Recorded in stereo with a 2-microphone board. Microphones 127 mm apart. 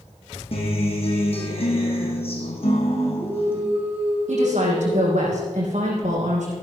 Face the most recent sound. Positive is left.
turn(degrees=-75)  # may be behind; listen again after turning